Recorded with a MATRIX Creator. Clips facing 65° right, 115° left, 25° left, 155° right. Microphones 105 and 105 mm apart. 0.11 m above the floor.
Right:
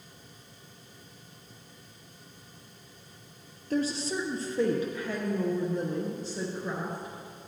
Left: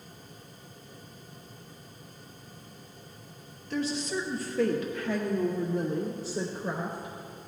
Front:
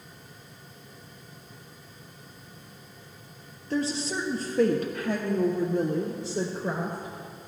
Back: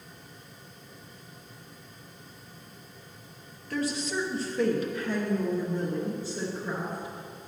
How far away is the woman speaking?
About 1.8 m.